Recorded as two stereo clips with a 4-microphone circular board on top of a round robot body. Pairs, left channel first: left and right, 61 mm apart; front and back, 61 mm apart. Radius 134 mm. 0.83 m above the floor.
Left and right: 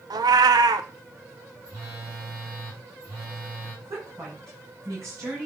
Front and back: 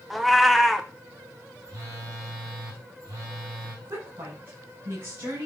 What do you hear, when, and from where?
0.1 s a cat meowing: 90° right, 0.6 m
1.6 s a phone buzzing: 145° right, 6 m
3.9 s a woman speaking: 125° right, 6.5 m